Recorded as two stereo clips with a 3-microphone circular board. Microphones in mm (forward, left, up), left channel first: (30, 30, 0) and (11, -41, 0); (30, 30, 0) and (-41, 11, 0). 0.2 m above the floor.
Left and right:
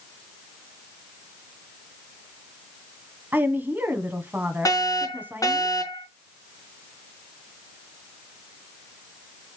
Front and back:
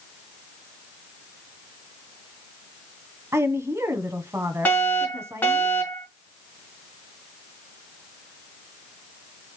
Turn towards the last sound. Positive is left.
turn(degrees=70)